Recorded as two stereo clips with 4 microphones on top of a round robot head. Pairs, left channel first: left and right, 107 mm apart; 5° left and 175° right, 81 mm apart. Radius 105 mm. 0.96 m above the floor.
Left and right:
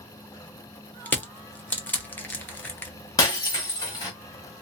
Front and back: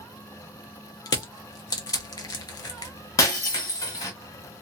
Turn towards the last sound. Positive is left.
turn(degrees=40)